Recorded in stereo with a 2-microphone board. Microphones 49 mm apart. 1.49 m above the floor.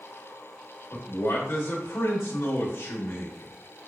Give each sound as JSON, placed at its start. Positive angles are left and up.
{"t": 0.9, "sound": "a man speaking", "side_deg": 60, "distance_m": 1.1}